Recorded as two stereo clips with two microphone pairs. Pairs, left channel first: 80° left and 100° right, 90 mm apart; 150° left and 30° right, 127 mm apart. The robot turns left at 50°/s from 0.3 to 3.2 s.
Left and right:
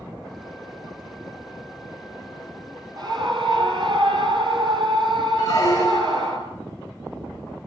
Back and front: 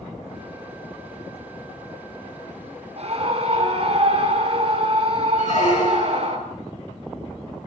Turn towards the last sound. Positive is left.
turn(degrees=130)